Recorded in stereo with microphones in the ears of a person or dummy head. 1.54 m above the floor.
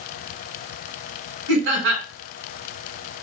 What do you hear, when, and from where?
1.5 s laughter: 75° right (ahead or behind), 1.3 m